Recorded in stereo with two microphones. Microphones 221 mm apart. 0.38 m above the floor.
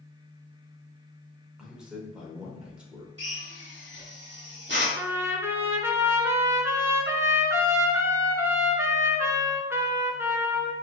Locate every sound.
1.6 s a man speaking: 5° right (ahead or behind), 0.8 m
3.2 s a drill: 55° right (ahead or behind), 1.0 m
5.0 s a trumpet: 10° right (ahead or behind), 0.6 m